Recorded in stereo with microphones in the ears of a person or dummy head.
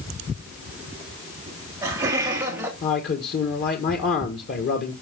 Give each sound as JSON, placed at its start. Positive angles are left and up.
{"t": 1.5, "sound": "laughter", "side_deg": -15, "distance_m": 3.0}
{"t": 2.8, "sound": "a man speaking", "side_deg": 50, "distance_m": 1.5}